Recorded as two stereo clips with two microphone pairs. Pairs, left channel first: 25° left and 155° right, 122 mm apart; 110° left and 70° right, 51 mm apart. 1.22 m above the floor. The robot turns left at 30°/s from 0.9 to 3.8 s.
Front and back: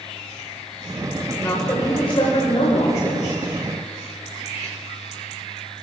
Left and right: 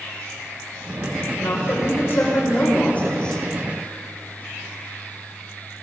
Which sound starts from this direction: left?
A woman speaking, at 1.4 s.